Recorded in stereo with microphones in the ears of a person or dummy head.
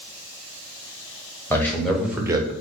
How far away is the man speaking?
About 0.9 m.